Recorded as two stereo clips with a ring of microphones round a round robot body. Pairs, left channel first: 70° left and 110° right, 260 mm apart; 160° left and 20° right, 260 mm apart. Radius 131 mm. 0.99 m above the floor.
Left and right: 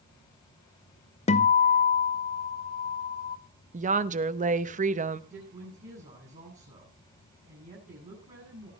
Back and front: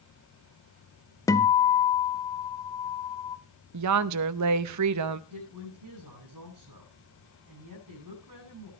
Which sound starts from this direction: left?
A guitar, at 1.3 s.